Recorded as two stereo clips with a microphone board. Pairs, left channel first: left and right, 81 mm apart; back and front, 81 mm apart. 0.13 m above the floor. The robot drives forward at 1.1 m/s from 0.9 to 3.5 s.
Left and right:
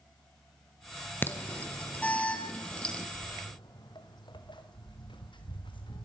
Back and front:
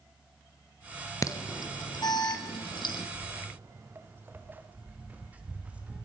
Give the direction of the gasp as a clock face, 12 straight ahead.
No gasp in this recording.